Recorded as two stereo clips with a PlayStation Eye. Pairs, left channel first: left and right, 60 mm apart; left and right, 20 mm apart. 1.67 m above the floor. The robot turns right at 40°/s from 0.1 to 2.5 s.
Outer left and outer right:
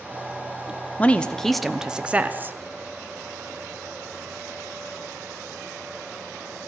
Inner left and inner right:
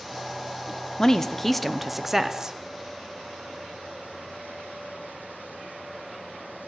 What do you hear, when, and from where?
1.0 s a woman speaking: 155° left, 0.8 m; by 2.5 s 145° right, 0.8 m